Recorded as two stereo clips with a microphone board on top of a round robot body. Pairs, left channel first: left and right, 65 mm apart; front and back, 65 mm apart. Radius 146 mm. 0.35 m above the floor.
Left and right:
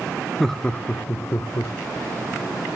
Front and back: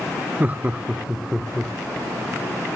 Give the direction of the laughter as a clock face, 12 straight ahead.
6 o'clock.